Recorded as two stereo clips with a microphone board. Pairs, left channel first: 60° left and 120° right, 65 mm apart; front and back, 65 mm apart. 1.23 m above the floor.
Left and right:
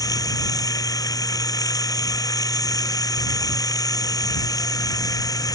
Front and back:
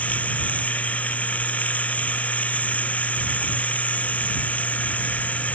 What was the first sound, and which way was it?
Running water, 65° left.